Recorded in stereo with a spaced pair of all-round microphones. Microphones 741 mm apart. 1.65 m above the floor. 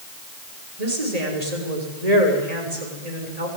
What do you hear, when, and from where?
0.8 s a woman speaking: 55° right (ahead or behind), 6.5 m